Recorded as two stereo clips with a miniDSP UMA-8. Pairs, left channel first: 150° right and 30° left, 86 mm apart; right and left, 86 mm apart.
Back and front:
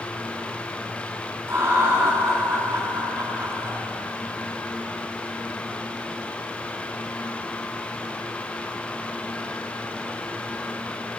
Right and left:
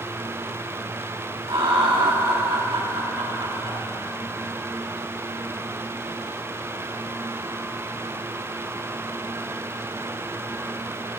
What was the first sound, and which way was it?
Laughter, 85° left.